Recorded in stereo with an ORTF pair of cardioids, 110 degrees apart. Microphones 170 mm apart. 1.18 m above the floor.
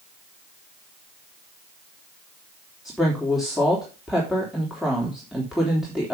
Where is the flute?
No flute in this recording.